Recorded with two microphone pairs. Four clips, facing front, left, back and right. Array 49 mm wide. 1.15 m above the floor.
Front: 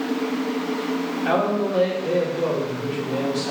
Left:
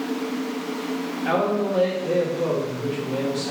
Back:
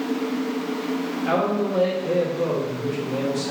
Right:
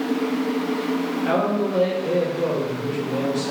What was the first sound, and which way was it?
A man speaking, 5° left.